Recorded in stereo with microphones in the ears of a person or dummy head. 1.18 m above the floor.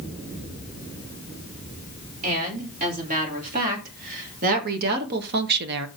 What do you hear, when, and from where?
2.2 s a woman speaking: 40° right (ahead or behind), 4 m; by 5.9 s 60° right (ahead or behind), 1.1 m